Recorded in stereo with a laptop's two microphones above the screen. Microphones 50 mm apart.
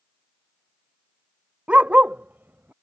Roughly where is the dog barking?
Right.